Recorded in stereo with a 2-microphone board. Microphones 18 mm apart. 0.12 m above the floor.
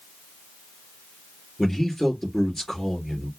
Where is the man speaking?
10° left (ahead or behind), 2.5 m.